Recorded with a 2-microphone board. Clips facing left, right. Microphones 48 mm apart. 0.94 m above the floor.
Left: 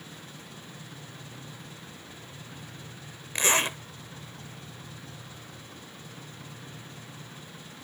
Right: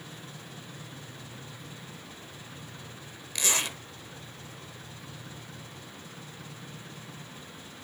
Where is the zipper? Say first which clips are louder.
Left 5 dB; 35° left (ahead or behind), 0.8 m.